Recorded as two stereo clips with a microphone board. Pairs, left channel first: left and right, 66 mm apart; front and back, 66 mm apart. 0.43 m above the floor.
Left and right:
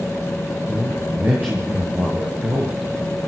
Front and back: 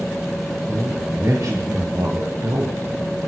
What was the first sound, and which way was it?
A man speaking, 150° right.